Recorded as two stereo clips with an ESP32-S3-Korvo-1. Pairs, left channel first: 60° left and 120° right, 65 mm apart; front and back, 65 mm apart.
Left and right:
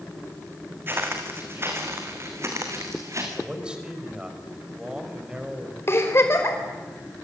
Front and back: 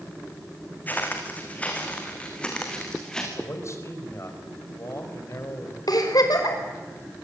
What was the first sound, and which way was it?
Footsteps, 65° right.